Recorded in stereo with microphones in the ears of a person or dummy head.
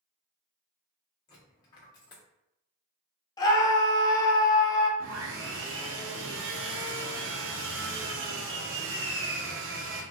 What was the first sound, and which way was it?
A dropped coin, 25° left (ahead or behind).